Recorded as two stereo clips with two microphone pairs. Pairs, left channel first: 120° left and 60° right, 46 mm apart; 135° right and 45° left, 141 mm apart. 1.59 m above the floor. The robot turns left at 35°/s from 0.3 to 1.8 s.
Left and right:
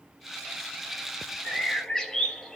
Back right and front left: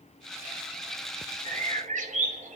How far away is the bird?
About 0.6 m.